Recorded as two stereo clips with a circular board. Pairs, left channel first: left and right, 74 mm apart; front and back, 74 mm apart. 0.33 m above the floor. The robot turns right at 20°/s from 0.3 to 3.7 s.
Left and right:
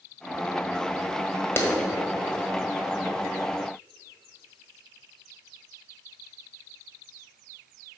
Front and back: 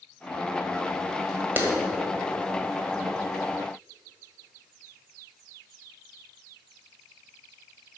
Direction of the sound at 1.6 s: 130° left.